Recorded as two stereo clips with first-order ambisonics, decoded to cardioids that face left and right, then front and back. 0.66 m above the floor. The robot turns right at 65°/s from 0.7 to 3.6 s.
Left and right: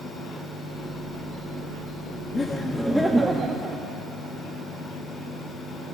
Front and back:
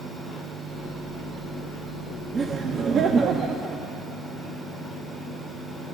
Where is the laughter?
140° left, 0.5 m; by 3.8 s 140° right, 0.5 m.